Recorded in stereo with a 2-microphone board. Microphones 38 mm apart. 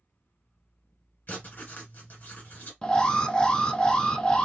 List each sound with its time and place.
1.3 s writing: 45° left (ahead or behind), 1.4 m
2.8 s an alarm: 20° left (ahead or behind), 0.7 m